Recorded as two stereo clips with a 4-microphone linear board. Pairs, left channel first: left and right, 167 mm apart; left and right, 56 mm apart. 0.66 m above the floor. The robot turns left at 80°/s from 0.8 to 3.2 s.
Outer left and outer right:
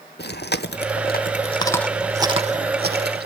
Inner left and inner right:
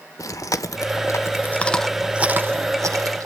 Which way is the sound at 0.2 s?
80° left.